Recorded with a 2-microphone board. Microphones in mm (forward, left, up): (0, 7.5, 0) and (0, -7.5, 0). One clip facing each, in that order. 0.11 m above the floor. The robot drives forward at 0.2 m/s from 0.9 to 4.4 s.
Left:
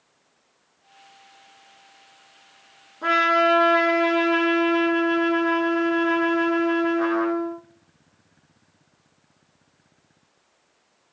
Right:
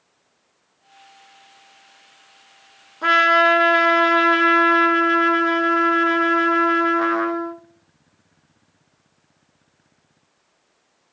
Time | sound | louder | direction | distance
3.0 | a trumpet | right 4 dB | 30° right (ahead or behind) | 0.7 m